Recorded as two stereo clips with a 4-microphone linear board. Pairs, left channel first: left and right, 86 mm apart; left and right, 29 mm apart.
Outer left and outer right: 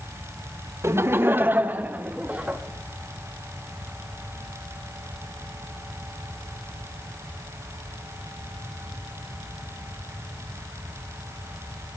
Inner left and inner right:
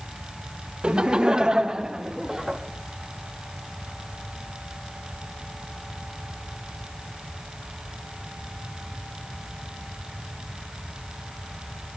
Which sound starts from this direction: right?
Laughter, at 0.8 s.